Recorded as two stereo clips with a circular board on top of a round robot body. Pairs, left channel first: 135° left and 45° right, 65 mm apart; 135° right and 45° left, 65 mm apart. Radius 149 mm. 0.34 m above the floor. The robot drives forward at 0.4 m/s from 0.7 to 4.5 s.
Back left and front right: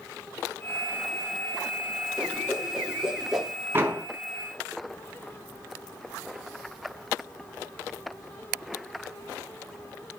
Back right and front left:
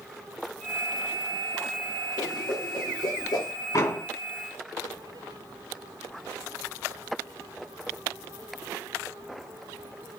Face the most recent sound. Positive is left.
turn(degrees=-105)